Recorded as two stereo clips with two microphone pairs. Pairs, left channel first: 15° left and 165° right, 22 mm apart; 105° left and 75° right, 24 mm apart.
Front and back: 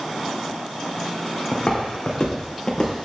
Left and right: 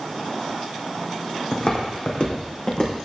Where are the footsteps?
70° left, 2.5 m; by 3.0 s 60° left, 3.5 m.